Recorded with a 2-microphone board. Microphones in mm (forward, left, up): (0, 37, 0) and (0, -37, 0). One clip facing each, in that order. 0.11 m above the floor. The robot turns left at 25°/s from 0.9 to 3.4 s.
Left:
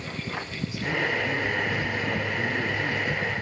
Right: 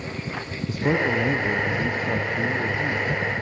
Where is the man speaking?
125° right, 3 m; by 3.1 s 175° right, 3 m.